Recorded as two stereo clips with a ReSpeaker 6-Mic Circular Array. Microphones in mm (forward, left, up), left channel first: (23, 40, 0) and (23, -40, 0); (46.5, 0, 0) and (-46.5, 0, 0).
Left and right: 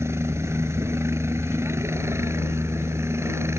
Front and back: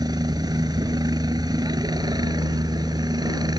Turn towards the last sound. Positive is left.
turn(degrees=-140)